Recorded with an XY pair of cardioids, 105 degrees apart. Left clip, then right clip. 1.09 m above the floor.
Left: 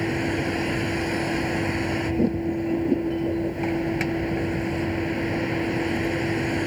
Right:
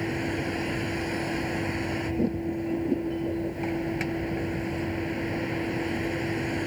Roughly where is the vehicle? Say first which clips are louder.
Left 4 dB; ahead left.